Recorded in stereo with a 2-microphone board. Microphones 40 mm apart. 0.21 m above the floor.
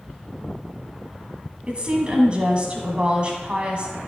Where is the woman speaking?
30° right (ahead or behind), 1.9 m.